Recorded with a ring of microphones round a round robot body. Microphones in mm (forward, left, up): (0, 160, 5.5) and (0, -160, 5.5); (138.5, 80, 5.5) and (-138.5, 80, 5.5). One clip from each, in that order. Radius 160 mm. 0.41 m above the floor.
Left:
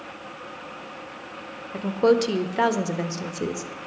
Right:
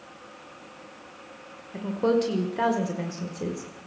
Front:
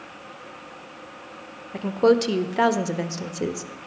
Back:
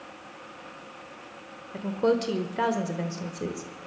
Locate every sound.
1.7 s a woman speaking: 40° left, 1.2 m